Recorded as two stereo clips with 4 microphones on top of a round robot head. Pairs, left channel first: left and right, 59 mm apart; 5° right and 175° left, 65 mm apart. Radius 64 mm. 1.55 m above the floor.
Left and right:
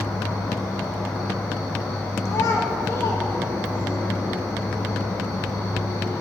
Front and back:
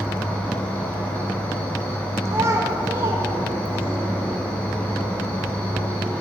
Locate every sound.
0.0 s an insect: 60° left, 2.0 m
2.2 s a child speaking: 130° left, 1.3 m